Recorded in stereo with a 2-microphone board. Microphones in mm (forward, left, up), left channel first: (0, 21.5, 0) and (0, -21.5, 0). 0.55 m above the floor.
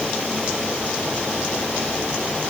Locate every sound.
Only background noise.